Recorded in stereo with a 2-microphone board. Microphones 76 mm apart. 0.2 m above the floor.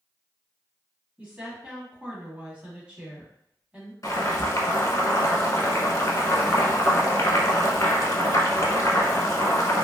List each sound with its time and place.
1.2 s a woman speaking: 20° right (ahead or behind), 1.2 m
4.0 s boiling: 45° left (ahead or behind), 0.7 m